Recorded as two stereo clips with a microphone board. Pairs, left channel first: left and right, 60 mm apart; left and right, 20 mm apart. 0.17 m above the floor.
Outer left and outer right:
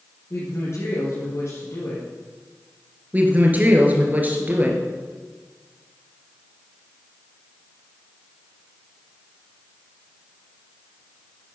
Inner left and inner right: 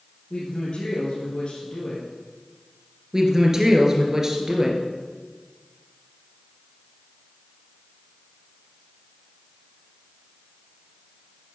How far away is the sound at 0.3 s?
About 3.5 m.